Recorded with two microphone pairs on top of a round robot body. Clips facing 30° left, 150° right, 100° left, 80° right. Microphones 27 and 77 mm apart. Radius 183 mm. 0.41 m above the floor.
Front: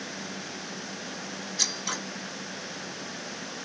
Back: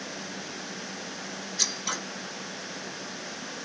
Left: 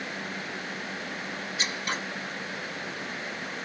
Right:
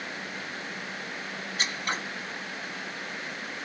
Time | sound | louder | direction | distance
1.6 | scissors | even, right 1 dB | 60° right | 1.9 m